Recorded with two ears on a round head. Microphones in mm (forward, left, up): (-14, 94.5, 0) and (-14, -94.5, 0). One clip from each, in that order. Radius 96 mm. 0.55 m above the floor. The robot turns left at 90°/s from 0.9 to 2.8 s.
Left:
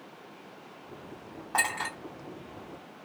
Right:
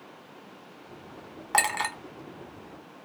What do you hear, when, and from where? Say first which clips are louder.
1.5 s a clink: right 3 dB; 55° right (ahead or behind), 1.0 m; by 1.9 s 70° right (ahead or behind), 1.0 m